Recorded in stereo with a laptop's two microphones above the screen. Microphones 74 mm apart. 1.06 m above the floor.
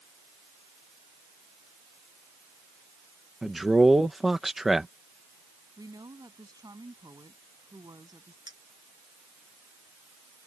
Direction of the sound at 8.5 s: 65° right (ahead or behind).